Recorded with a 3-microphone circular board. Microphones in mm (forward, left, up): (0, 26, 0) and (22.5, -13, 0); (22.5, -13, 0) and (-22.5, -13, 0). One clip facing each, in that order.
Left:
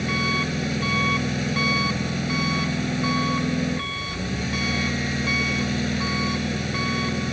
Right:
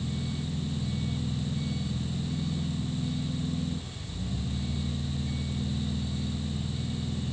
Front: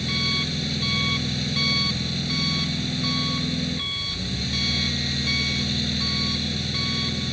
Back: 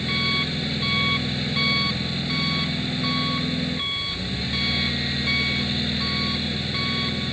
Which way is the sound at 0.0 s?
105° left.